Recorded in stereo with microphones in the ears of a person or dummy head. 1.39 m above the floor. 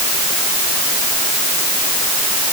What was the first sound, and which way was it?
Only background noise.